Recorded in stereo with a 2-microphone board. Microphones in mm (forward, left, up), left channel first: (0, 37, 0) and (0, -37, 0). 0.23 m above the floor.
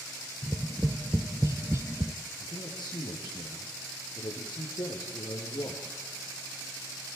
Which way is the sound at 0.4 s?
40° right (ahead or behind).